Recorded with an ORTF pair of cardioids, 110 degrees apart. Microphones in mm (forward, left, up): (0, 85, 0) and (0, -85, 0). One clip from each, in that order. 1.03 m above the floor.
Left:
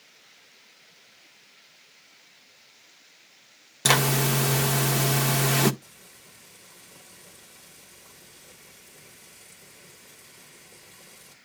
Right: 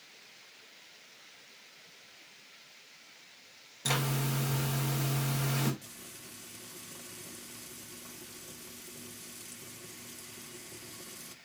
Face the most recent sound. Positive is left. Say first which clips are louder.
# right 2 dB
turn(degrees=-60)